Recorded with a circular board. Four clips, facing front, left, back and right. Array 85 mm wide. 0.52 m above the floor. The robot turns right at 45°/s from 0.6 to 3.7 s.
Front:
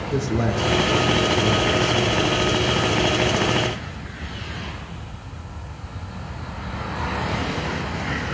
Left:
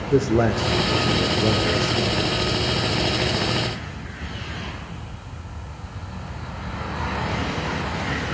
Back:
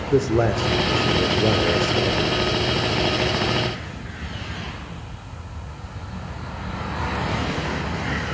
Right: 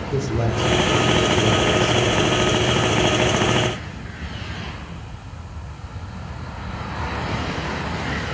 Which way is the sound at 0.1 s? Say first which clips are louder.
Left 5 dB, back 5 dB; 140° left.